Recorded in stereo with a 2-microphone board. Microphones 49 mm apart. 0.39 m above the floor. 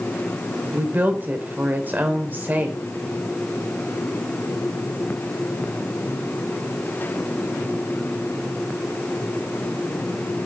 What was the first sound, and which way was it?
A woman speaking, 40° right (ahead or behind).